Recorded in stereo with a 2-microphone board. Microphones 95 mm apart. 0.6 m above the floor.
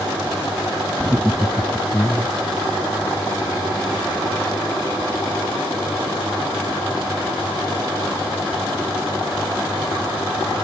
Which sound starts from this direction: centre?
Laughter, at 1.0 s.